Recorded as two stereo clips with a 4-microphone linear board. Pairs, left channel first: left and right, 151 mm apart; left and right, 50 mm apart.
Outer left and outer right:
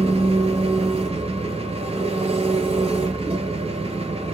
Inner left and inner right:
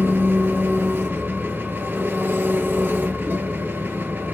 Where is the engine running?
40° right (ahead or behind), 0.8 m.